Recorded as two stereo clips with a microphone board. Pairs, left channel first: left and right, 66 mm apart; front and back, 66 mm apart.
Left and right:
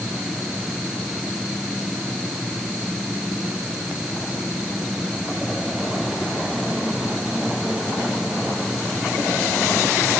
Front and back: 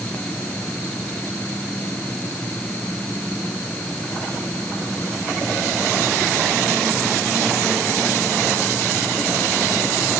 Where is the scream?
No scream in this recording.